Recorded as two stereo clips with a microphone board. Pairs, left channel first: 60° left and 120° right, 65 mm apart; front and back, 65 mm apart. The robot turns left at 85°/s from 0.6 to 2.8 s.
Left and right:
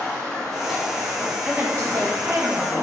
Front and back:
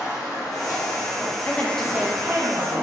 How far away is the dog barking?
I don't hear a dog barking.